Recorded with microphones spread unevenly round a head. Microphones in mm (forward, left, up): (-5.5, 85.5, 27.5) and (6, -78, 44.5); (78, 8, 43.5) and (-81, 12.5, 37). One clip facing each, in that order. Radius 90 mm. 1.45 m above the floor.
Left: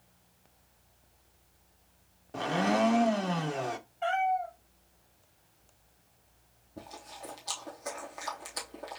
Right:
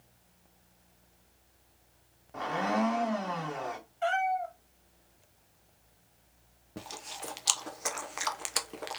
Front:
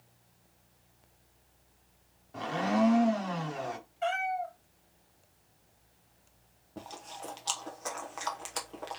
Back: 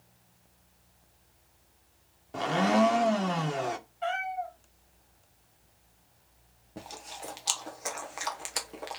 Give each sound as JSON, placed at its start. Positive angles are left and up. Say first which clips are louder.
{"t": 2.3, "sound": "a blender", "louder": "left 2 dB, back 4 dB", "azimuth_deg": 150, "distance_m": 0.8}
{"t": 4.0, "sound": "a cat meowing", "louder": "even, front 2 dB", "azimuth_deg": -40, "distance_m": 1.7}
{"t": 6.8, "sound": "chewing", "louder": "right 2 dB, even", "azimuth_deg": -100, "distance_m": 0.8}